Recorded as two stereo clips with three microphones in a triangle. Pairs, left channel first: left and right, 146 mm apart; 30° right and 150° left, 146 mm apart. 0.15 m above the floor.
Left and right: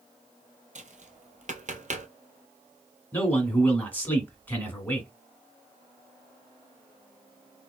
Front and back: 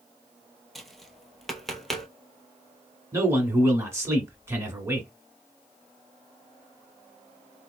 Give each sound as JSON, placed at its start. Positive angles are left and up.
{"t": 0.8, "sound": "tapping", "azimuth_deg": -120, "distance_m": 0.7}
{"t": 3.1, "sound": "a man speaking", "azimuth_deg": 140, "distance_m": 1.3}